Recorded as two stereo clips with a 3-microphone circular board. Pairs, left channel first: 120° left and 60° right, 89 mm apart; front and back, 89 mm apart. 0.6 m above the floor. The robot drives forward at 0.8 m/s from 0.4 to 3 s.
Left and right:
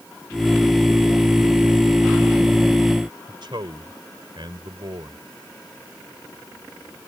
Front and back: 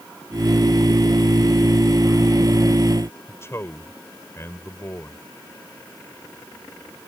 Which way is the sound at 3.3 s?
55° right.